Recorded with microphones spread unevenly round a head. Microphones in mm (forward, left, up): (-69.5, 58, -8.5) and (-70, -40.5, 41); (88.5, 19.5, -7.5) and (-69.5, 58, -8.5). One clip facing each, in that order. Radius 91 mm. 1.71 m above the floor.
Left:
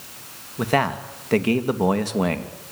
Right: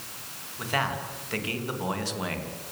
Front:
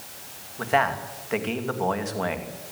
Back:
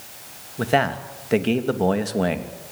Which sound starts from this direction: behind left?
A man speaking, at 0.6 s.